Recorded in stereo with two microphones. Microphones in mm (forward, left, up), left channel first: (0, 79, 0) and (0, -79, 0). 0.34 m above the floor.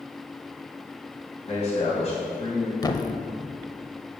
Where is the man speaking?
45° left (ahead or behind), 3 m.